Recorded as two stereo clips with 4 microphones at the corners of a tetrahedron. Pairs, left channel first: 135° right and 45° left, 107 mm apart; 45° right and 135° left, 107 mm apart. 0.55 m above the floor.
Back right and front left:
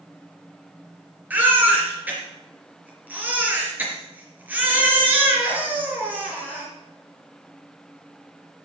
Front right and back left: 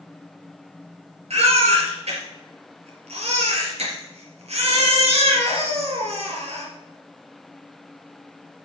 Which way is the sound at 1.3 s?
120° left.